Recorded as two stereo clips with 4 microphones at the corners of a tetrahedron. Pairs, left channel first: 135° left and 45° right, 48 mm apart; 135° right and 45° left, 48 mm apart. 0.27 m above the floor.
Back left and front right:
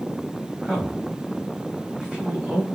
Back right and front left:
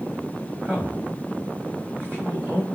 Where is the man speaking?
15° left, 2.0 m.